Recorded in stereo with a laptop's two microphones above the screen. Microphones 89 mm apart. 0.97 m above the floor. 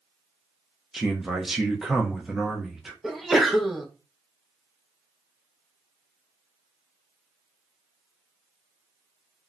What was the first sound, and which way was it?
A man speaking, 5° right (ahead or behind).